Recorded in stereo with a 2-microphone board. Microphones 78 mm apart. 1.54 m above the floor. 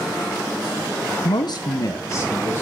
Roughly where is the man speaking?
Left.